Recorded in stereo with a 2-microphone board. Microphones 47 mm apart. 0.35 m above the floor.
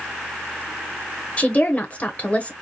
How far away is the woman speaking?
About 1.1 m.